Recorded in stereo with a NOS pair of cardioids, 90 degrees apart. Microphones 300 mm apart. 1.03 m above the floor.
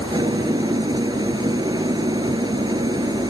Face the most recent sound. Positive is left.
turn(degrees=-15)